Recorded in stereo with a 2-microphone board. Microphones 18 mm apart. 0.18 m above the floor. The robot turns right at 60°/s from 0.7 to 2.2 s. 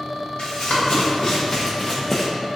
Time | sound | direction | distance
0.4 | running footsteps | 65° left (ahead or behind) | 1.6 m